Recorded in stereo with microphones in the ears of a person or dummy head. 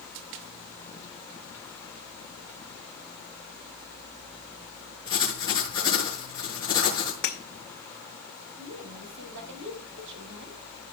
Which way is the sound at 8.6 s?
70° right (ahead or behind).